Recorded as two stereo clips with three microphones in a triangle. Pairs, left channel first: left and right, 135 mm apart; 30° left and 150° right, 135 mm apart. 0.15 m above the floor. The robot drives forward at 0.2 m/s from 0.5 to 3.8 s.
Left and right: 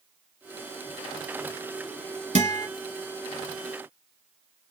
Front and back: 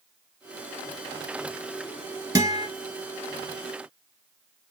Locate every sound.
2.4 s a guitar: 90° right, 1.1 m; by 2.7 s 95° right, 1.1 m